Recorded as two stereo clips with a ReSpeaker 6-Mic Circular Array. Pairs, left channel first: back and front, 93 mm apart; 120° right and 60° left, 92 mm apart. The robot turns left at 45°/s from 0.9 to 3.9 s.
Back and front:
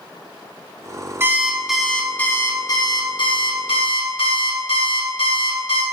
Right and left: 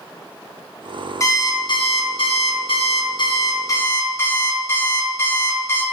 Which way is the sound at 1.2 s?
65° right.